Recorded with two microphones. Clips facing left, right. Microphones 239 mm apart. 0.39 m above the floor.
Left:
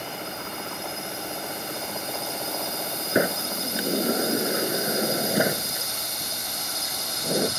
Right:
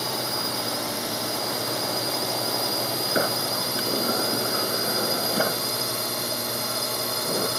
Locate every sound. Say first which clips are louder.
0.0 s a drone: right 5 dB; 75° right (ahead or behind); by 7.6 s 65° right (ahead or behind)
3.1 s a sliding door: left 4 dB; 15° left (ahead or behind)